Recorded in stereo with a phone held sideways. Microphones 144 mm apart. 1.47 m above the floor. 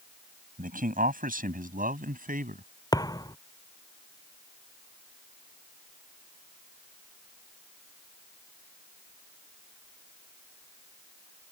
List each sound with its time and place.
0.6 s a man speaking: 75° right (ahead or behind)
2.9 s a thud: 25° left (ahead or behind)